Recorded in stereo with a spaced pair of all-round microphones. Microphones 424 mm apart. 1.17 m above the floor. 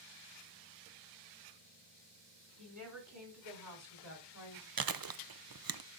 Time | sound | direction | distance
2.6 | a woman speaking | 45° right (ahead or behind) | 4.5 m
4.8 | chewing | 55° right (ahead or behind) | 0.6 m